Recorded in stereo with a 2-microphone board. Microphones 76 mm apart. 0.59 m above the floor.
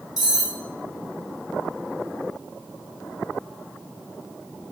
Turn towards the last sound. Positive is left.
turn(degrees=55)  # may be behind; listen again after turning